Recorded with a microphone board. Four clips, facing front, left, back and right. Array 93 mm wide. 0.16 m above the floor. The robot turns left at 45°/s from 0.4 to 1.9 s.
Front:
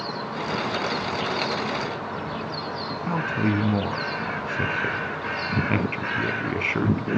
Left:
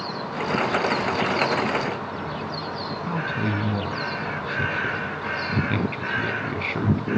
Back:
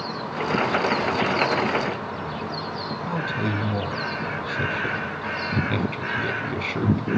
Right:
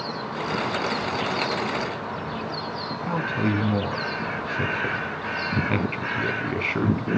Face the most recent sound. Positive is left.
turn(degrees=-25)